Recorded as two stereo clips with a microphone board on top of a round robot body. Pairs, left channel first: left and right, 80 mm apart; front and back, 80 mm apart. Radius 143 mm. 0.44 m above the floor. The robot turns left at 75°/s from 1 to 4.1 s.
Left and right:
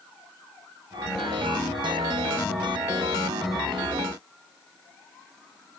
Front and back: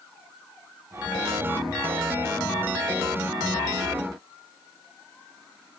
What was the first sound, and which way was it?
Only background noise.